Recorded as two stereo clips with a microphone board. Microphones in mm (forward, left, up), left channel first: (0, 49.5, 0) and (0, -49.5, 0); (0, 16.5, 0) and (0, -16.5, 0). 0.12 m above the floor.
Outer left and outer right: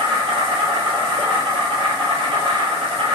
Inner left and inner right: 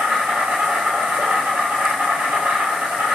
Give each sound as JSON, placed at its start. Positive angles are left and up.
{"t": 0.0, "sound": "an insect", "side_deg": -65, "distance_m": 1.3}